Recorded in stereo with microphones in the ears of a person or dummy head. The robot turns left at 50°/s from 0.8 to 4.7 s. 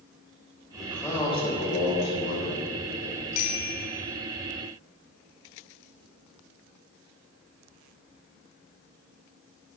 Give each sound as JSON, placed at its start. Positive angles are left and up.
{"t": 0.7, "sound": "a man speaking", "azimuth_deg": 180, "distance_m": 6.0}
{"t": 3.3, "sound": "a bicycle bell", "side_deg": 50, "distance_m": 2.5}